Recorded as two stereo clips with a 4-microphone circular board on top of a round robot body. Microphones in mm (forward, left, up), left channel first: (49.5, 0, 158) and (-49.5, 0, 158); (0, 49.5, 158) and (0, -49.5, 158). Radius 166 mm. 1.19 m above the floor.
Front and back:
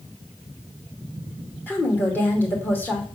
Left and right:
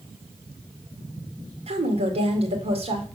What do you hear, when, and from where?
1.7 s a woman speaking: 75° right, 2.5 m